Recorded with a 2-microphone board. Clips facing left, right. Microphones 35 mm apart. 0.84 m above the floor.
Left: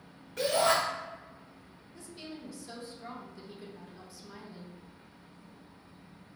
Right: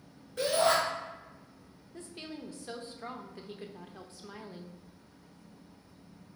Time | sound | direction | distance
0.4 | a shout | 70° left (ahead or behind) | 1.8 m
1.9 | a woman speaking | 40° right (ahead or behind) | 0.5 m